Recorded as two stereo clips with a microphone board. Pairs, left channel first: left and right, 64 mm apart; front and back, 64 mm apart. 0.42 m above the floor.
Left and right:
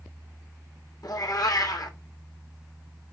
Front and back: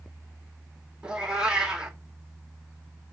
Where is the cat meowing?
105° left, 1.4 m.